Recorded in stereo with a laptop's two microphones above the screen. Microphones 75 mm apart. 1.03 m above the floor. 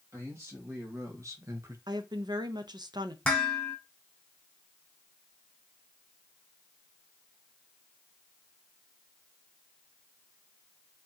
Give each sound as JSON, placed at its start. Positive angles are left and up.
{"t": 0.1, "sound": "a man speaking", "side_deg": -40, "distance_m": 1.9}
{"t": 1.9, "sound": "a woman speaking", "side_deg": -65, "distance_m": 0.6}
{"t": 3.2, "sound": "dishes clattering", "side_deg": 10, "distance_m": 1.5}